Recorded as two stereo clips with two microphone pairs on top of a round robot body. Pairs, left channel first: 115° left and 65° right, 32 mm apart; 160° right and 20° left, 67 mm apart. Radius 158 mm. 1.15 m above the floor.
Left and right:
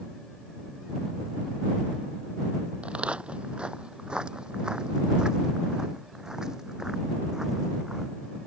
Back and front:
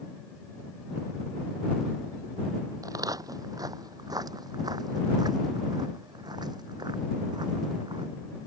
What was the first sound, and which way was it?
Footsteps, 10° right.